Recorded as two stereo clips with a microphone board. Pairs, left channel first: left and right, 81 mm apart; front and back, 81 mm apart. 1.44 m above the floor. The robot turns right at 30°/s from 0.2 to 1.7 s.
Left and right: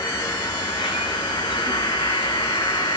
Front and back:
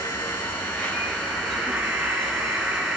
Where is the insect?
55° left, 7 m; by 3.0 s 100° left, 7 m.